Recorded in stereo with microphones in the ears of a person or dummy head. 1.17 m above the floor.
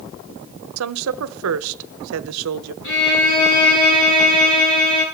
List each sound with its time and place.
0.8 s a woman speaking: 80° right, 0.6 m
2.8 s a violin: 65° left (ahead or behind), 8 m